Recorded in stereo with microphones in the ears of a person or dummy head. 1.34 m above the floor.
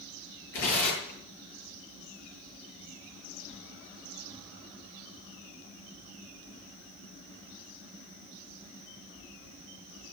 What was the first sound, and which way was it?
Tearing paper, 80° left.